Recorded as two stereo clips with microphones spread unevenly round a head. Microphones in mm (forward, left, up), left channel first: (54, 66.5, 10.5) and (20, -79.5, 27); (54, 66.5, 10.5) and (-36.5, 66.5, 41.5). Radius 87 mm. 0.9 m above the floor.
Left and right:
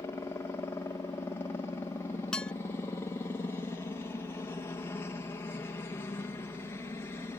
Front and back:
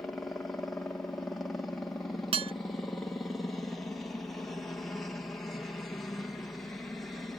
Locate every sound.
0.0 s a helicopter: 40° left
2.3 s dishes clattering: 160° left